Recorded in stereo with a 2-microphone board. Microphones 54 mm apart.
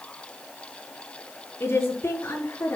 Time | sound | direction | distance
1.6 | a woman speaking | 45° left (ahead or behind) | 5 m